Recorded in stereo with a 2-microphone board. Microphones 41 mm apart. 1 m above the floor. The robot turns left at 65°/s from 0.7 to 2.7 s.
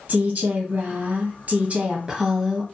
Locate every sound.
0.1 s a woman speaking: 55° right, 0.8 m; by 2.6 s straight behind, 0.8 m